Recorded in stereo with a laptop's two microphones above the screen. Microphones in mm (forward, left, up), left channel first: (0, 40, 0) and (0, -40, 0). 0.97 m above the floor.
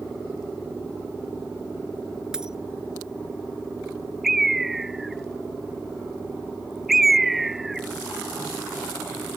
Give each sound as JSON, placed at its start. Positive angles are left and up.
{"t": 2.3, "sound": "a dropped coin", "side_deg": -5}
{"t": 4.2, "sound": "a bird", "side_deg": -5}